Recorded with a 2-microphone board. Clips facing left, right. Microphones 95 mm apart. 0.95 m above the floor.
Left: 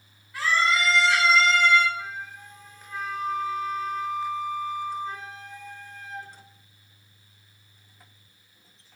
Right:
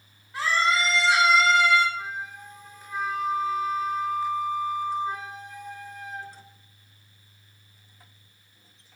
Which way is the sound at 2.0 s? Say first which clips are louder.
Right 2 dB; 20° right (ahead or behind).